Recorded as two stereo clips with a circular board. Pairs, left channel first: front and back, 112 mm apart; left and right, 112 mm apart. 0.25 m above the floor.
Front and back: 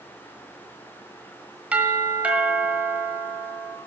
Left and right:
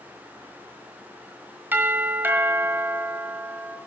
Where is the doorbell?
125° right, 1.5 m.